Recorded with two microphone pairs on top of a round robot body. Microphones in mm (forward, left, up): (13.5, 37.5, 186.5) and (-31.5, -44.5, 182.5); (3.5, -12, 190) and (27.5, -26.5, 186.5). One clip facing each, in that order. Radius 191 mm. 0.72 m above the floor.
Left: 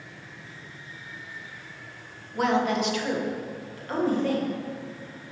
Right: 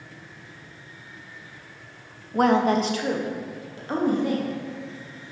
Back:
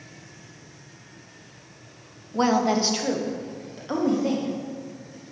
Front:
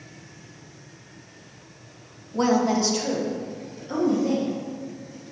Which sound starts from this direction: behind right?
A woman speaking, at 2.3 s.